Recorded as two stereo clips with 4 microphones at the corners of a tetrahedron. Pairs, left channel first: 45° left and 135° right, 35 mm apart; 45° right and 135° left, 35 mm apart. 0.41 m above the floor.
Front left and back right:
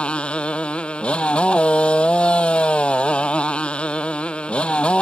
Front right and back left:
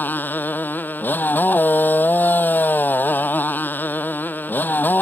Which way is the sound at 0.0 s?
15° right.